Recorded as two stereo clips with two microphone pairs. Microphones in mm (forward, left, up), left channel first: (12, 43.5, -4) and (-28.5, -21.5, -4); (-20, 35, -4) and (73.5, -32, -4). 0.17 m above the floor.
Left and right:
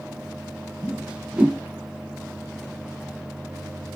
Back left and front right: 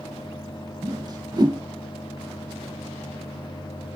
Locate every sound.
0.8 s a whoosh: 50° right, 0.7 m